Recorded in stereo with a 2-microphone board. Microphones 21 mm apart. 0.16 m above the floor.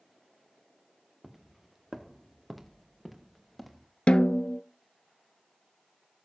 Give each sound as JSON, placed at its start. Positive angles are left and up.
{"t": 1.2, "sound": "footsteps", "side_deg": -10, "distance_m": 1.0}
{"t": 4.1, "sound": "a snare drum", "side_deg": 65, "distance_m": 0.6}